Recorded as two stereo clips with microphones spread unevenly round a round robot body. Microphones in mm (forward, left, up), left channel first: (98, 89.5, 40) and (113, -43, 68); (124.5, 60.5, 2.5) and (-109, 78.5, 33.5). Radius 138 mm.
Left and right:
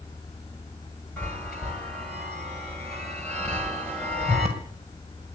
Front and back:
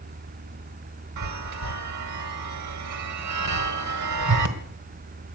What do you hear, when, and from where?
1.2 s a chime: 175° right, 1.5 m